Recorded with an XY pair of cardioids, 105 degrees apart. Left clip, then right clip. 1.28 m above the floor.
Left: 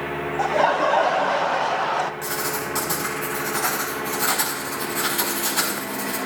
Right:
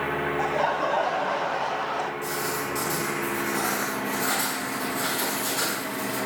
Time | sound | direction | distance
0.4 | laughter | 35° left | 0.6 m
2.2 | writing | 55° left | 3.5 m